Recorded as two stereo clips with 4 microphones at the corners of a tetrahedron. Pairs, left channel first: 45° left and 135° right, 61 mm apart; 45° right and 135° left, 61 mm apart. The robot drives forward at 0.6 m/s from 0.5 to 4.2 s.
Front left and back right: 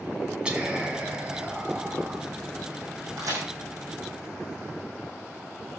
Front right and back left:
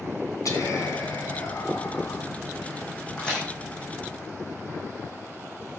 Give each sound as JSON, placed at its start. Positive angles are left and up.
{"t": 0.5, "sound": "whispering", "azimuth_deg": -60, "distance_m": 3.5}
{"t": 3.2, "sound": "a crack", "azimuth_deg": -115, "distance_m": 6.5}